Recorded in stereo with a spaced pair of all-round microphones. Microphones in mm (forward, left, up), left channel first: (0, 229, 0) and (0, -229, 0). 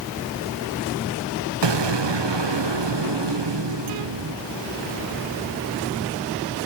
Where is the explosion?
60° right (ahead or behind), 0.7 m.